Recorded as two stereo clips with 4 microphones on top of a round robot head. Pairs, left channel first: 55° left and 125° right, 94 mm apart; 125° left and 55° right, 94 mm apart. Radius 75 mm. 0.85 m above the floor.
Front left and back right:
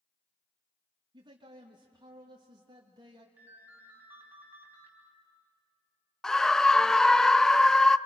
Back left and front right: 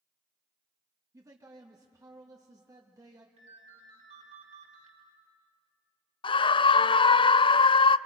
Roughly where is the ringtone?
Ahead right.